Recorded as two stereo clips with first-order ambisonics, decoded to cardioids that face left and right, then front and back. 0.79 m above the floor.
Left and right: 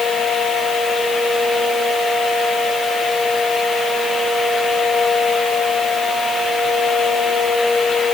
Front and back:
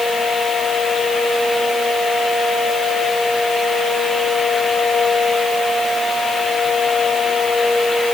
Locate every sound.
Only background noise.